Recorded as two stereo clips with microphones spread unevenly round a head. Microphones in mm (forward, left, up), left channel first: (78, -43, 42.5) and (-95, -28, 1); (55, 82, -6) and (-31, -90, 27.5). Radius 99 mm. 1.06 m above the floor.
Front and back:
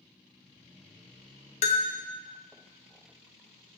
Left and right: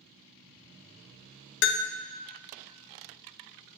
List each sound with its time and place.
1.6 s a bell: 60° left, 0.6 m